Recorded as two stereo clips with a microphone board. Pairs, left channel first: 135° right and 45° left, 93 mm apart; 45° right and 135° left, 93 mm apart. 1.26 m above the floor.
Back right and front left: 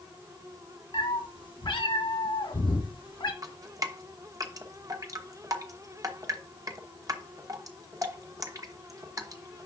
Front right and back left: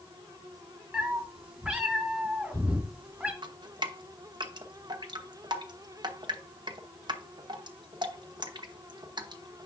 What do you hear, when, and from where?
0.9 s a cat meowing: 145° right, 1.5 m
3.4 s dripping: 100° left, 0.8 m